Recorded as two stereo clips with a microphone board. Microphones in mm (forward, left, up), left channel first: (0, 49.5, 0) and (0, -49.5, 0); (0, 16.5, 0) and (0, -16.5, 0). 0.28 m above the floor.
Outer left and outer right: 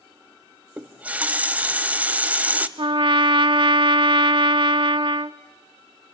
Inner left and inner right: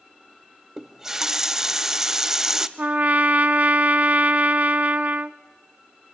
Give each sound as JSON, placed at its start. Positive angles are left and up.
{"t": 0.8, "sound": "a running tap", "side_deg": -15, "distance_m": 0.7}
{"t": 2.8, "sound": "a trumpet", "side_deg": -55, "distance_m": 0.5}